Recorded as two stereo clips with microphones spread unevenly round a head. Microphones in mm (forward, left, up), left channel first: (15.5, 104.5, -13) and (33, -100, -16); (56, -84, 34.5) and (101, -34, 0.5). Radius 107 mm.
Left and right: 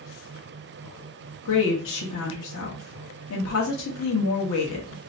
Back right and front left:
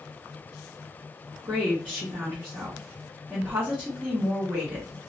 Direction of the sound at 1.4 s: 130° left.